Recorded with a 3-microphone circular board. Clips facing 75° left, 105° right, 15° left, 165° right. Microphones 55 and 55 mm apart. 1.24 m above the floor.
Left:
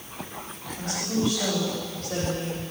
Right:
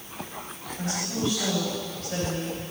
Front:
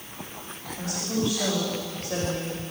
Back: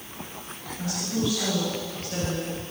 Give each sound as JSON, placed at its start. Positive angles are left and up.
{"t": 0.8, "sound": "a woman speaking", "azimuth_deg": 40, "distance_m": 4.5}